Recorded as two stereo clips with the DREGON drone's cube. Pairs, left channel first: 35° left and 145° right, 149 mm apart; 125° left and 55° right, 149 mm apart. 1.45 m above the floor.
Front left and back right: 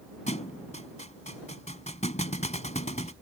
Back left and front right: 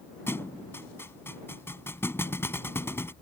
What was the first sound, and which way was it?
A thud, 55° left.